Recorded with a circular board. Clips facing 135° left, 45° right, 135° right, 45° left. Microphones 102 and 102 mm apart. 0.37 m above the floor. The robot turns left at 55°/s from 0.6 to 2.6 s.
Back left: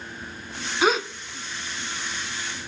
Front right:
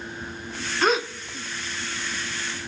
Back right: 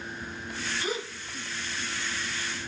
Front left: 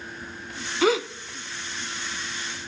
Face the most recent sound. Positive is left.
turn(degrees=-45)